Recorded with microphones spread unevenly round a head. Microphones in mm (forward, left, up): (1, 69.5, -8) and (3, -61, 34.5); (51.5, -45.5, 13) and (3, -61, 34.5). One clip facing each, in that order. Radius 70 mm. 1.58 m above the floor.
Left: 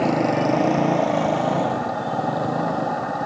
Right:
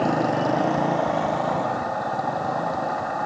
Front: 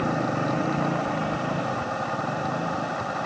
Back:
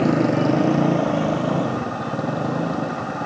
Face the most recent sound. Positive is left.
turn(degrees=150)